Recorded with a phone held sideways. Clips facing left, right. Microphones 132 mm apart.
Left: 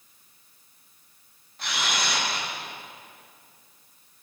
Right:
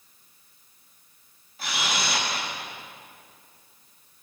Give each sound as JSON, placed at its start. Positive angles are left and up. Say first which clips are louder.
{"t": 1.6, "sound": "a camera shutter", "louder": "even", "side_deg": -5, "distance_m": 8.0}